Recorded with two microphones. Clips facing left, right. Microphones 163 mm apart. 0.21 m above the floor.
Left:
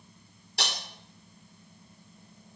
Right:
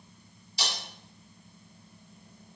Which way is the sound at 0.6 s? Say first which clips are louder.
Left 1 dB; 60° left (ahead or behind).